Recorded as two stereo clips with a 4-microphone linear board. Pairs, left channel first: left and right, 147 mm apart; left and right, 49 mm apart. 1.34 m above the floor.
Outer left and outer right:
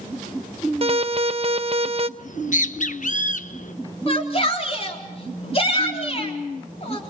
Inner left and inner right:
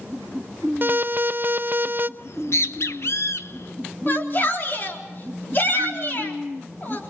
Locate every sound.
0.8 s an alarm: 40° right (ahead or behind), 0.6 m
2.2 s a bird: 60° left (ahead or behind), 0.8 m
4.1 s a shout: 40° left (ahead or behind), 4 m